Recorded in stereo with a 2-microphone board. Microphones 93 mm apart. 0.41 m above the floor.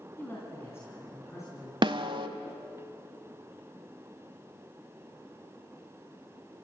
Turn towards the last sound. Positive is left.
turn(degrees=-55)  # may be behind; listen again after turning